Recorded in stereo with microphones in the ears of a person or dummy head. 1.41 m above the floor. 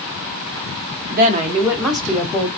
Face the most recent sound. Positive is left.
turn(degrees=15)  # may be behind; listen again after turning